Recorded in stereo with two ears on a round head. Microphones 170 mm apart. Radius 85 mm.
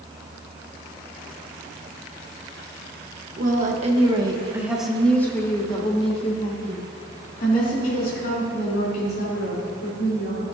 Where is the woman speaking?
45° right (ahead or behind), 1.3 m; by 10.4 s 55° left (ahead or behind), 4 m.